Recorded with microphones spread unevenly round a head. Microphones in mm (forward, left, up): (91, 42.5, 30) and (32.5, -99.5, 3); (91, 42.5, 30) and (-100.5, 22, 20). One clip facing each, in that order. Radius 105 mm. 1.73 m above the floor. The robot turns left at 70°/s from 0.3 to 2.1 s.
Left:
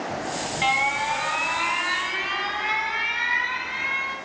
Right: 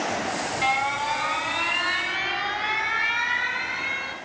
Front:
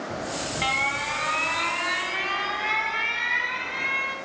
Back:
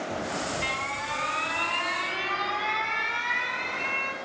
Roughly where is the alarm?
Ahead left.